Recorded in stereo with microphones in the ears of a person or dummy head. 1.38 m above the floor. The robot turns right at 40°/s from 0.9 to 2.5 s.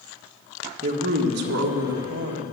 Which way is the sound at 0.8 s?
145° right.